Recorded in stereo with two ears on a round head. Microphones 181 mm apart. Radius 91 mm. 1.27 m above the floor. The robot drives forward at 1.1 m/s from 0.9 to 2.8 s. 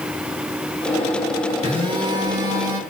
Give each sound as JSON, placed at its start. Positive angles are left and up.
{"t": 1.6, "sound": "a phone buzzing", "side_deg": -30, "distance_m": 1.6}